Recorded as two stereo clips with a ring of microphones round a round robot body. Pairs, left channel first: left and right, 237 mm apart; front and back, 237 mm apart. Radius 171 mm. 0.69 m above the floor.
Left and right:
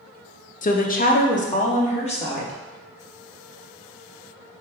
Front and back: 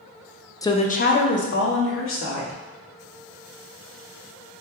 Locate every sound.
0.6 s a woman speaking: 70° left, 0.5 m; by 2.6 s 25° left, 1.7 m